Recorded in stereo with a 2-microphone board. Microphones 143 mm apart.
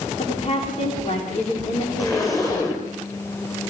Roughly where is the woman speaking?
Left.